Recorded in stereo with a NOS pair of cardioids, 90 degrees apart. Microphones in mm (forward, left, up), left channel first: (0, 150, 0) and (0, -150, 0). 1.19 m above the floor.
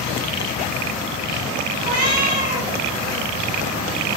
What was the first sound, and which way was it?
A cat meowing, 30° right.